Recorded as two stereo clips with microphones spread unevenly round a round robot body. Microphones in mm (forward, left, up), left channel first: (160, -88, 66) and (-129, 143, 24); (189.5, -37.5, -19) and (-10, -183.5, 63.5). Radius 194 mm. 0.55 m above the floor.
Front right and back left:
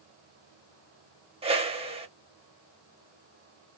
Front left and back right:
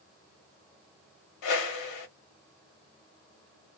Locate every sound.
1.4 s a whoosh: 65° left, 0.6 m